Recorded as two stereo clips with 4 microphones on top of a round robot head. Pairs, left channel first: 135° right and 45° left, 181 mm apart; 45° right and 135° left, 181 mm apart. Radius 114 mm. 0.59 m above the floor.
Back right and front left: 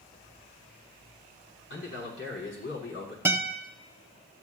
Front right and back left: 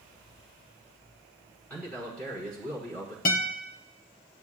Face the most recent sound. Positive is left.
turn(degrees=-30)